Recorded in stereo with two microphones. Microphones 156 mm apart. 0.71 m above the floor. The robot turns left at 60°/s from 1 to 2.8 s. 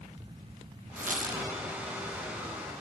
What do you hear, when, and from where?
1.0 s a squeak: 60° right (ahead or behind), 0.8 m; by 1.5 s 50° right (ahead or behind), 0.8 m